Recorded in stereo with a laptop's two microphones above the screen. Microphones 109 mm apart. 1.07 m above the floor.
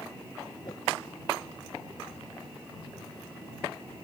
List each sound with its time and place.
0.6 s a whoosh: 40° left (ahead or behind)